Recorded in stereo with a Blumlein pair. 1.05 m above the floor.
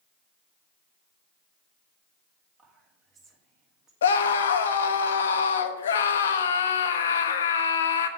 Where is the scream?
65° left, 0.8 m.